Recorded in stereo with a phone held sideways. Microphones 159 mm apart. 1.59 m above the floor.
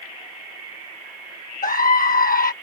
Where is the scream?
65° left (ahead or behind).